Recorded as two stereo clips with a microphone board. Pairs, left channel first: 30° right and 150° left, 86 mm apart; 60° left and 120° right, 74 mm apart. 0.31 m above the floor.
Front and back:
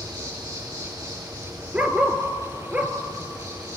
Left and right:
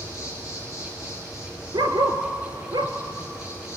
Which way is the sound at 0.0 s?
110° left.